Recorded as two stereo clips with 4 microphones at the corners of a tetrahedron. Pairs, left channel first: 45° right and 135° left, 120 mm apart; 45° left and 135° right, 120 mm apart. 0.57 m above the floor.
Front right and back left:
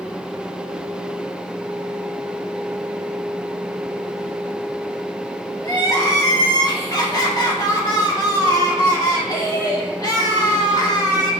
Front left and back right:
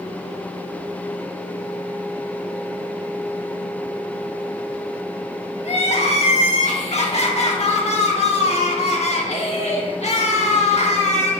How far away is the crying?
About 0.9 m.